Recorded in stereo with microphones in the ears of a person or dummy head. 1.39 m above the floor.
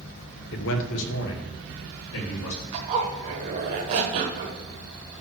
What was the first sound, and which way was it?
A man speaking, 65° left (ahead or behind).